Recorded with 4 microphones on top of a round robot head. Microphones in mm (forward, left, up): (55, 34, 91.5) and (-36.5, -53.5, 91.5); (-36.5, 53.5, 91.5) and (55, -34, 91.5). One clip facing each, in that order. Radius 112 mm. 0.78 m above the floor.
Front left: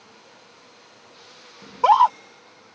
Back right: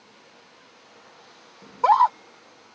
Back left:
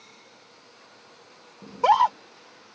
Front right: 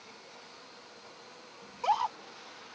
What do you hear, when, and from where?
1.6 s a scream: 125° left